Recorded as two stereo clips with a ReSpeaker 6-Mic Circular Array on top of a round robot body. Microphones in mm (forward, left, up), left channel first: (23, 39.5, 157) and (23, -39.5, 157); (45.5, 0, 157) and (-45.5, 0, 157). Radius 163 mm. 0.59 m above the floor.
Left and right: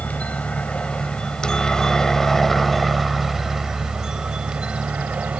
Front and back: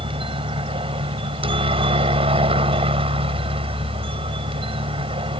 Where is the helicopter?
165° left; by 5.4 s 165° right.